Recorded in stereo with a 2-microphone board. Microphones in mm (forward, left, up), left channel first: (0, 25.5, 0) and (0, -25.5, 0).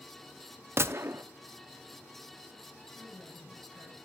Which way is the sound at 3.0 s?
60° left (ahead or behind).